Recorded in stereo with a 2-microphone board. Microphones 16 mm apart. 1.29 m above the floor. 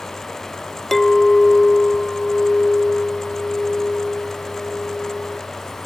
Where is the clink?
15° left (ahead or behind), 0.6 m.